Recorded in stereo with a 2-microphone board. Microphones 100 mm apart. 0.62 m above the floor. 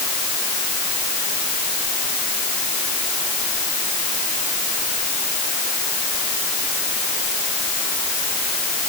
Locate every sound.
Only background noise.